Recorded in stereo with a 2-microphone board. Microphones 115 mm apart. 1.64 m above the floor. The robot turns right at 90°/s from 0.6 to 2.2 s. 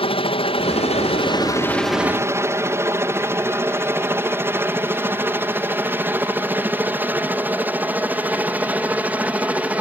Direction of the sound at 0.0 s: 55° left (ahead or behind).